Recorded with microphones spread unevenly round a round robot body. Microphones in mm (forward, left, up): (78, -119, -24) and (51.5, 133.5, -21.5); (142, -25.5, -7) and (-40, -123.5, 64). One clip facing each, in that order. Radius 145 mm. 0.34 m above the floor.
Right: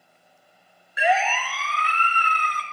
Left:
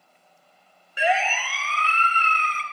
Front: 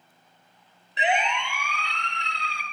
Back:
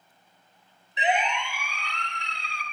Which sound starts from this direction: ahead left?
A siren, at 1.0 s.